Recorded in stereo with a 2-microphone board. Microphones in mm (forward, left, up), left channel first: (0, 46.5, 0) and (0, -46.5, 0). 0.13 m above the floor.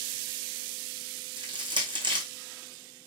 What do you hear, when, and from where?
1.4 s crushing: 60° right (ahead or behind), 2.5 m